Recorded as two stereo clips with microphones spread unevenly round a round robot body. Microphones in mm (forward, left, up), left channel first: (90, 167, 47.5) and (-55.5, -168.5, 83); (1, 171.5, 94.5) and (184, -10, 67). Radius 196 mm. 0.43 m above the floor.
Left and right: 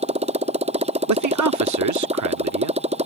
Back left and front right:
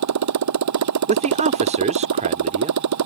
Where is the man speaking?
90° right.